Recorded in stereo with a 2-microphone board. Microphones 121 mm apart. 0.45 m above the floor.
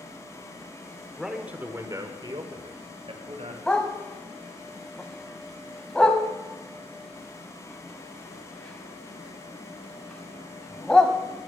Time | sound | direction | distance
1.2 | a man speaking | centre (ahead or behind) | 1.3 m
3.7 | a dog barking | 5° left (ahead or behind) | 1.1 m